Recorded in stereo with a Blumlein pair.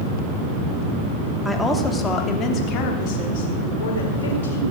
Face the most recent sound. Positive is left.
turn(degrees=60)